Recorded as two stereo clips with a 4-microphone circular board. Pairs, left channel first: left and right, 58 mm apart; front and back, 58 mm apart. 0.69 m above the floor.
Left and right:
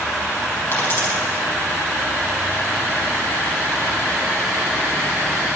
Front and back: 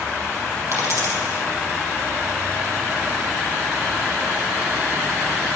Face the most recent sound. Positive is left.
turn(degrees=140)